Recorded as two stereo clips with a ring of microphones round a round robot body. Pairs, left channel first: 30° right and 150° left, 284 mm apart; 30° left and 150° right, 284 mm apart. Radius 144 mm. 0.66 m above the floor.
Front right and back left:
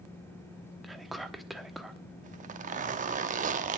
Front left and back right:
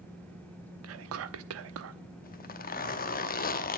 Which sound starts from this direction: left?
A zipper, at 2.2 s.